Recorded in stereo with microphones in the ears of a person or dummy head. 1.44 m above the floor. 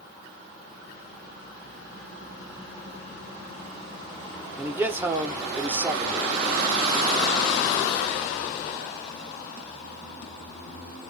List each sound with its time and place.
4.6 s a man speaking: 15° right (ahead or behind), 0.6 m